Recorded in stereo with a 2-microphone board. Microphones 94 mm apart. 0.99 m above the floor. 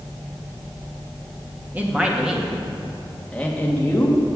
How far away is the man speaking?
About 1.7 m.